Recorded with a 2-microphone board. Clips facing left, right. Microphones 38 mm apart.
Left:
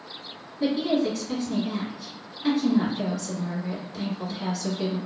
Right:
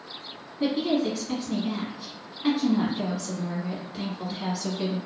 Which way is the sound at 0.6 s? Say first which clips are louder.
Left 1 dB; 15° right (ahead or behind).